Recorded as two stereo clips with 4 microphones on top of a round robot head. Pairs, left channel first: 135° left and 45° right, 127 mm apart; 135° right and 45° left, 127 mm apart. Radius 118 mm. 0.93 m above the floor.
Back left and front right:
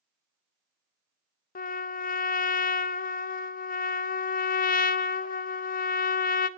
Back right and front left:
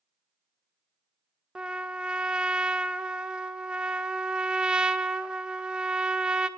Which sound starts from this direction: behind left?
A trumpet, at 1.6 s.